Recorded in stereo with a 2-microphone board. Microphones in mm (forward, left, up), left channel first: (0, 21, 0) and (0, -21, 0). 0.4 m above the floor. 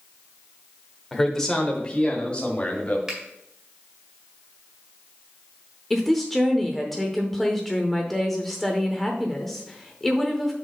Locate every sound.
1.1 s a man speaking: 5° left (ahead or behind), 0.9 m; by 3.0 s 30° left (ahead or behind), 1.6 m
3.1 s a finger snap: 15° right (ahead or behind), 1.7 m
5.9 s a woman speaking: 5° left (ahead or behind), 0.8 m